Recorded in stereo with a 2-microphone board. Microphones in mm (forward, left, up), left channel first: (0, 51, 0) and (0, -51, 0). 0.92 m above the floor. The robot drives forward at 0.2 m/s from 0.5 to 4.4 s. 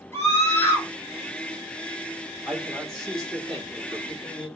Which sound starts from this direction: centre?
A man speaking, at 2.5 s.